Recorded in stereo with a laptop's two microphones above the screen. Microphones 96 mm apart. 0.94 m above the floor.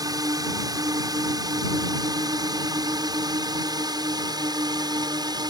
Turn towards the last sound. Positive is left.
turn(degrees=-40)  # may be behind; listen again after turning